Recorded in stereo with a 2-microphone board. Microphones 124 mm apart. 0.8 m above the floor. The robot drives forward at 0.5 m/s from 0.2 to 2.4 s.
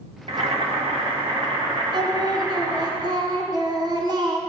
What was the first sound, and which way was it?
Boiling, 50° right (ahead or behind).